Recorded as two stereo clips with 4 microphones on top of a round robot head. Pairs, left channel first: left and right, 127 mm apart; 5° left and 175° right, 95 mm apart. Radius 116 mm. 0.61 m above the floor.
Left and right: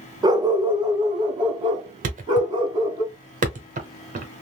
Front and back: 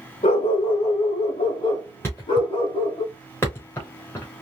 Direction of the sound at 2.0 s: 65° right.